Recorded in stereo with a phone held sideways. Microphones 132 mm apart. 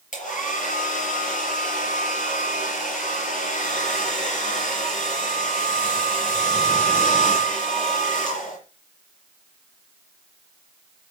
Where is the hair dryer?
70° left (ahead or behind), 5.5 m.